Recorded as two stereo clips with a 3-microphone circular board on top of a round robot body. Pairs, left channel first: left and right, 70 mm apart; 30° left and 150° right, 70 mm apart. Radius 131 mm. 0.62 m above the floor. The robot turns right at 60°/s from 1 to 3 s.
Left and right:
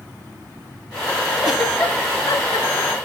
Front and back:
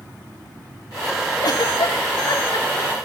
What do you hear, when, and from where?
1.4 s a giggle: 5° right, 1.7 m; by 2.9 s 85° left, 1.7 m